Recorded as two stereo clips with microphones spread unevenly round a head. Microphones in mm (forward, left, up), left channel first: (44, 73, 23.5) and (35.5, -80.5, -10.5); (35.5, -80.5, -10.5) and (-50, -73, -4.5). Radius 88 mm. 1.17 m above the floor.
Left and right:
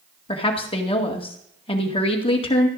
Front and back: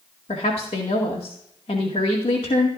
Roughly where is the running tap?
No running tap in this recording.